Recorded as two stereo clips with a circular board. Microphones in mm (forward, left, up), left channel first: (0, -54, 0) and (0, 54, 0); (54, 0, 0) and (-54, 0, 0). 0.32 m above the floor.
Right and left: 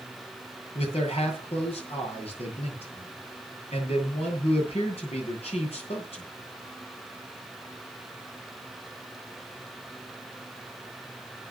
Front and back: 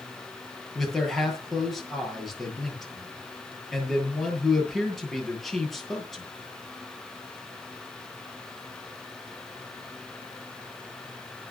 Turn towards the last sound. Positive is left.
turn(degrees=-90)